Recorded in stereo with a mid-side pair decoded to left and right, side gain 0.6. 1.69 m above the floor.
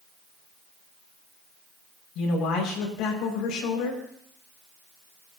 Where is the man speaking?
65° left, 6 m.